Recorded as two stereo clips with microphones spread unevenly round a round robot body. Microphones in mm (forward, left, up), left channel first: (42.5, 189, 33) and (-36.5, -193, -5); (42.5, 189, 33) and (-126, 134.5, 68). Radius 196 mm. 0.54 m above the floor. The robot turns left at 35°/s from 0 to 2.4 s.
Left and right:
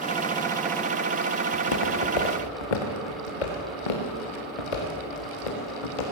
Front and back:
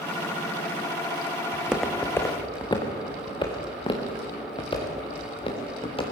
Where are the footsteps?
120° left, 2.5 m; by 6.0 s 80° left, 6 m.